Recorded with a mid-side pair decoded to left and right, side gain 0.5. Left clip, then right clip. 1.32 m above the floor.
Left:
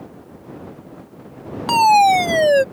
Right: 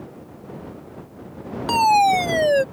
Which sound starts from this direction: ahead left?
A fire alarm, at 1.7 s.